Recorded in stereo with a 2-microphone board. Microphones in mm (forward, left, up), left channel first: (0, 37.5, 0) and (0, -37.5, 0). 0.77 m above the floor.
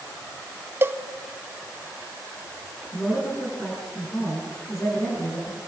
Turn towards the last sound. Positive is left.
turn(degrees=30)  # may be behind; listen again after turning